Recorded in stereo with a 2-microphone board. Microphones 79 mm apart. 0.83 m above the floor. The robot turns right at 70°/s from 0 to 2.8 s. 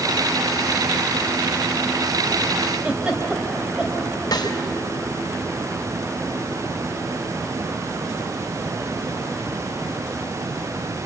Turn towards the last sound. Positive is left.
turn(degrees=55)  # may be behind; listen again after turning